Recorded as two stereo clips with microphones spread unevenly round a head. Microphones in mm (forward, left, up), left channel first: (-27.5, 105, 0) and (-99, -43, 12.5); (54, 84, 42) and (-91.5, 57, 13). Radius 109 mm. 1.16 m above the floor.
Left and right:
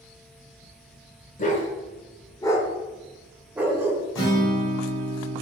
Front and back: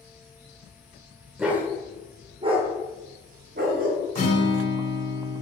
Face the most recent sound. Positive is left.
turn(degrees=35)